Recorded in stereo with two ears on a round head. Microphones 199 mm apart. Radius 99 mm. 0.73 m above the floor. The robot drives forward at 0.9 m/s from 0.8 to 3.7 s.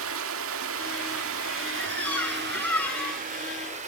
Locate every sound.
0.0 s running water: 60° right (ahead or behind), 1.7 m; by 3.9 s 30° right (ahead or behind), 3 m
1.8 s a squeak: 5° left (ahead or behind), 5.5 m